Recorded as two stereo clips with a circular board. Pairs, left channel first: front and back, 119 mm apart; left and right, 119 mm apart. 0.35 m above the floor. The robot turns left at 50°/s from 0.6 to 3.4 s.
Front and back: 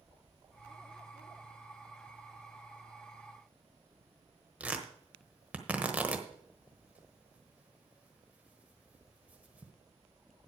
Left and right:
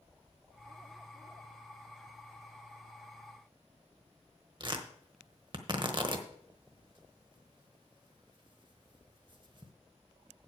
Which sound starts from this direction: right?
Tearing paper, at 4.6 s.